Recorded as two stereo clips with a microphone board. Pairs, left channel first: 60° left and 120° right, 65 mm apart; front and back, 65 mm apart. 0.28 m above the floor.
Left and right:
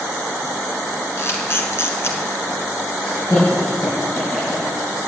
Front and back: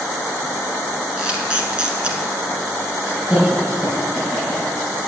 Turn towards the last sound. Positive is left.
turn(degrees=100)